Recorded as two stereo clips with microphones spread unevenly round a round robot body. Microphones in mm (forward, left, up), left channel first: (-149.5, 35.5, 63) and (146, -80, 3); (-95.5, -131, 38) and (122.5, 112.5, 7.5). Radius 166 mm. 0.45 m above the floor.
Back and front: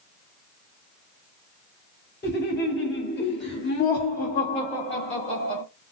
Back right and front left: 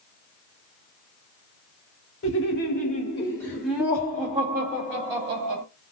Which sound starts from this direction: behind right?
Laughter, at 2.2 s.